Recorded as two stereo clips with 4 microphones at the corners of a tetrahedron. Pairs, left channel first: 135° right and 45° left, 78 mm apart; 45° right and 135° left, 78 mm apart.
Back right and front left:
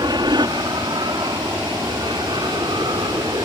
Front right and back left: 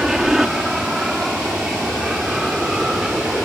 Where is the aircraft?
50° left.